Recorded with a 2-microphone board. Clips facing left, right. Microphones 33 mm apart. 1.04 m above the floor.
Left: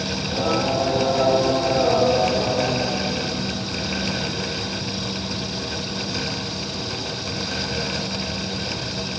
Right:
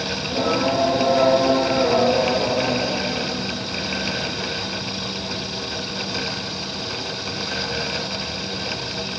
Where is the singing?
65° right (ahead or behind), 1.7 m.